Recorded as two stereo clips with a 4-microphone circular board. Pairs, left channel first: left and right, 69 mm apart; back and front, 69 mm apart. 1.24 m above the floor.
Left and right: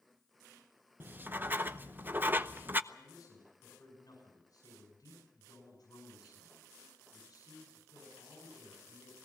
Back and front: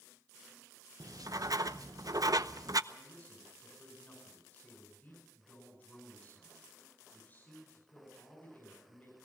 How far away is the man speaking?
About 6.5 m.